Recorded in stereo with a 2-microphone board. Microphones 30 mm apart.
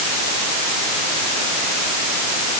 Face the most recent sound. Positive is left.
No sound to turn to.